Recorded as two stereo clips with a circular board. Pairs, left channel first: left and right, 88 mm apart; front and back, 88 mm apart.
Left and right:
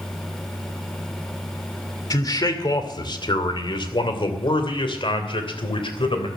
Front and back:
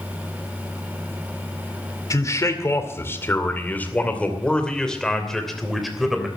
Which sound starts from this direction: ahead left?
A man speaking, at 2.1 s.